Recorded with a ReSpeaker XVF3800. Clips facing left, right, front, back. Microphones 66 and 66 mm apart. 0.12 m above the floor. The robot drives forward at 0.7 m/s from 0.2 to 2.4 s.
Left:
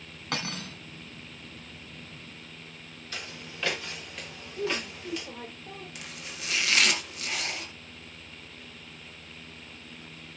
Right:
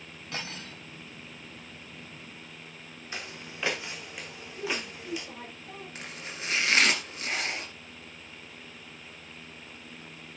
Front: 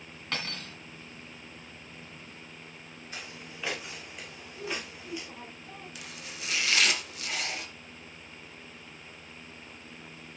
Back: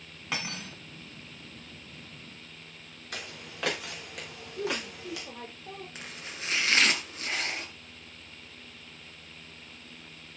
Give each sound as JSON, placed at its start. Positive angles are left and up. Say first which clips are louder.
{"t": 0.3, "sound": "cutlery clinking", "louder": "left 5 dB, back 1 dB", "azimuth_deg": 105, "distance_m": 3.0}
{"t": 3.1, "sound": "footsteps", "louder": "right 1 dB, back 3 dB", "azimuth_deg": -160, "distance_m": 3.5}
{"t": 4.6, "sound": "a woman speaking", "louder": "left 3 dB, back 4 dB", "azimuth_deg": 155, "distance_m": 6.0}
{"t": 6.0, "sound": "chopping", "louder": "right 2 dB, back 1 dB", "azimuth_deg": -135, "distance_m": 2.0}